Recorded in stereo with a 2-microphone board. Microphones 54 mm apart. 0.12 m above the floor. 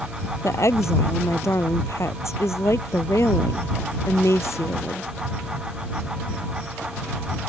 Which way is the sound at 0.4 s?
65° left (ahead or behind).